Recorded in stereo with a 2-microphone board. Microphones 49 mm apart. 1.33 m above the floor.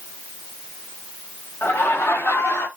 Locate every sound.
1.6 s laughter: 55° left (ahead or behind), 4 m; by 2.7 s 65° left (ahead or behind), 3 m